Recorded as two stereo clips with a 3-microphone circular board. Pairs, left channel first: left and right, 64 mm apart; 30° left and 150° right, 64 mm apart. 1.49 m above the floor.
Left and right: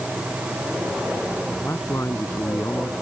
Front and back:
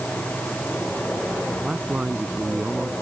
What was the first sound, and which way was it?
A man speaking, 140° left.